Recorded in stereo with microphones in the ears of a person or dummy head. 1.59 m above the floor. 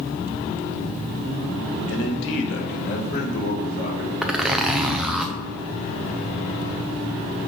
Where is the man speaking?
80° left, 1.6 m; by 4.1 s 55° left (ahead or behind), 3.5 m.